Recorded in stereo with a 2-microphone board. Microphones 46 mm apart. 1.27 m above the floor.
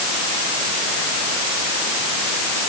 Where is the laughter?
No laughter in this recording.